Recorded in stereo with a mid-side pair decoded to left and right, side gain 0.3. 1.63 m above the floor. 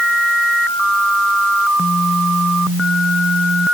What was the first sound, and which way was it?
Only background noise.